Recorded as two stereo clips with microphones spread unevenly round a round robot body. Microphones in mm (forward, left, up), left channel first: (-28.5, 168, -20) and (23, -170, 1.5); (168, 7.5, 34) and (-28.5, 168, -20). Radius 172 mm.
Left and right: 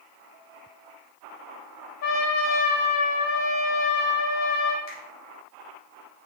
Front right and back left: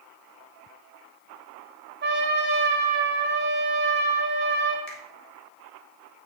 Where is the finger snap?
50° left, 3.5 m.